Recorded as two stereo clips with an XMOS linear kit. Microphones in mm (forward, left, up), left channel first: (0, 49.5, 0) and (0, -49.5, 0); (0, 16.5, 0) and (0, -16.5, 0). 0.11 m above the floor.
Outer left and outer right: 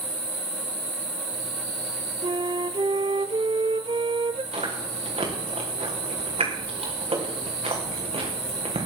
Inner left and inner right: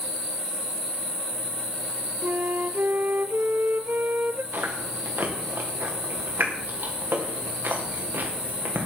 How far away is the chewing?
About 4.5 m.